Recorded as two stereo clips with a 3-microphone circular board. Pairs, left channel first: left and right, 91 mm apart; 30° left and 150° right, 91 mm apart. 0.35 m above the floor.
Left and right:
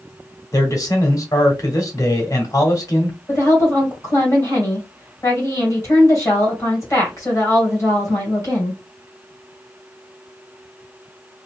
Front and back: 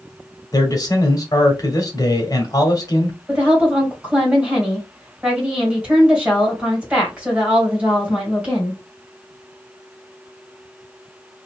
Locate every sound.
0.5 s a man speaking: 55° left, 1.3 m
3.3 s a woman speaking: 135° left, 2 m